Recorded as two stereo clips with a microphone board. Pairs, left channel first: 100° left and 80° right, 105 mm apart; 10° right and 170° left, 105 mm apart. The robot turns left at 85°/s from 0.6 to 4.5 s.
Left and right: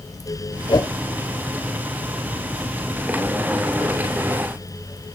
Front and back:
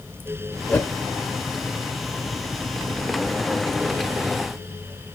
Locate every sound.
0.7 s a whoosh: 60° left, 0.8 m; by 0.9 s 40° left, 0.8 m